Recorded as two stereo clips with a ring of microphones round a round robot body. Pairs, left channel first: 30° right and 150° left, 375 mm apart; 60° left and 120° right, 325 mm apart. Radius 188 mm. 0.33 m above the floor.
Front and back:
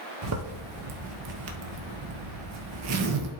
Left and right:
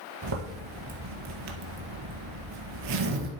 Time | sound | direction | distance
0.2 | a zipper | 160° right | 1.4 m